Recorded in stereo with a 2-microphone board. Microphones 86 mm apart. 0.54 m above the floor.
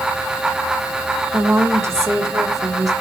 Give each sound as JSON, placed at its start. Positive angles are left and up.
{"t": 1.3, "sound": "a woman speaking", "side_deg": -30, "distance_m": 1.6}